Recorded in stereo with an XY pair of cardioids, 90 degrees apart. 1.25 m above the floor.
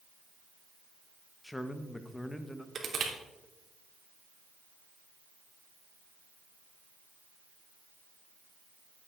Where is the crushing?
45° right, 3 m.